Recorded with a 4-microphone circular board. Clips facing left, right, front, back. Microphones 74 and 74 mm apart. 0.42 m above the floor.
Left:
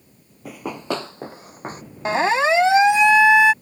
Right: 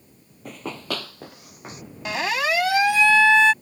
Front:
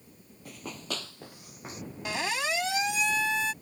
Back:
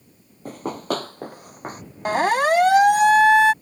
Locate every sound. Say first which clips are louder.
0.5 s running footsteps: left 4 dB, back 13 dB; 170° left; by 1.8 s 140° left
2.0 s a siren: left 6 dB, back 13 dB; 145° left; by 3.5 s 165° left